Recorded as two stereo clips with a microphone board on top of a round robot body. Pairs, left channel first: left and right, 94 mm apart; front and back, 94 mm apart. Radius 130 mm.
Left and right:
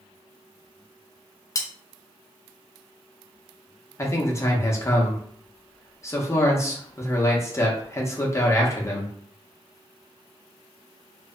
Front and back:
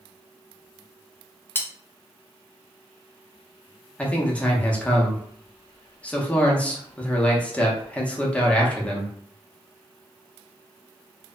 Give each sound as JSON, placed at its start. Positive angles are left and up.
{"t": 1.6, "sound": "cutlery clinking", "azimuth_deg": 60, "distance_m": 0.6}
{"t": 4.0, "sound": "a man speaking", "azimuth_deg": 65, "distance_m": 1.0}